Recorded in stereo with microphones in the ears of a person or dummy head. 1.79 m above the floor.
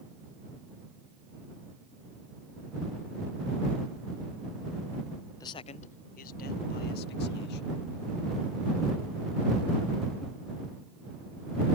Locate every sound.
5.4 s a man speaking: 20° left (ahead or behind); by 7.8 s 65° left (ahead or behind)